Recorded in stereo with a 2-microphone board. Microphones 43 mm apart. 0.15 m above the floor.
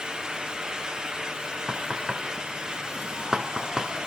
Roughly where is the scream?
I don't hear a scream.